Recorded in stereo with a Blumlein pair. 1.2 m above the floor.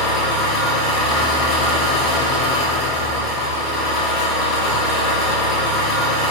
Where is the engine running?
35° left, 0.7 m.